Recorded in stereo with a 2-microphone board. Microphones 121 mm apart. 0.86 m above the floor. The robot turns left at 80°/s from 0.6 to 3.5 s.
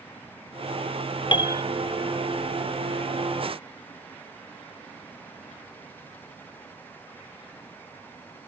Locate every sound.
1.3 s a piano: 45° left (ahead or behind); by 1.6 s 20° left (ahead or behind)